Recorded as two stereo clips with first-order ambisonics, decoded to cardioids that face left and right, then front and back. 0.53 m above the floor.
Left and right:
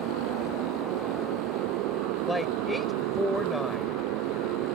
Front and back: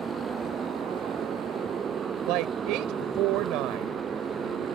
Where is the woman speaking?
170° left.